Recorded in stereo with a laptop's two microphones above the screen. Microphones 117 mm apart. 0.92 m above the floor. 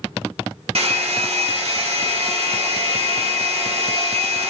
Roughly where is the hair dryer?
Right.